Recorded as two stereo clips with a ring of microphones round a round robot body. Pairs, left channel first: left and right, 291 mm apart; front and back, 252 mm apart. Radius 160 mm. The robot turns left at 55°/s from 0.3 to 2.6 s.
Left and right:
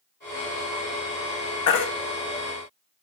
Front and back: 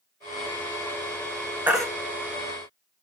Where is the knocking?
No knocking in this recording.